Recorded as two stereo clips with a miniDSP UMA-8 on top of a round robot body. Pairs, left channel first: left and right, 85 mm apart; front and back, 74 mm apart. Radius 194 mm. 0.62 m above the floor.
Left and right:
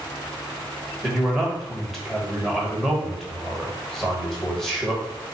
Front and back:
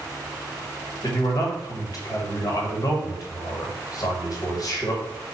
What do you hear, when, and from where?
1.0 s a man speaking: 5° left, 1.5 m